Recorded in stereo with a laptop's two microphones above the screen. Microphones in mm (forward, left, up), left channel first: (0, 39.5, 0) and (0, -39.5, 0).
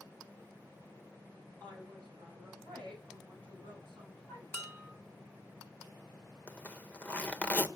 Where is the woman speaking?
15° left (ahead or behind), 9 m; by 4.4 s 10° left (ahead or behind), 12 m.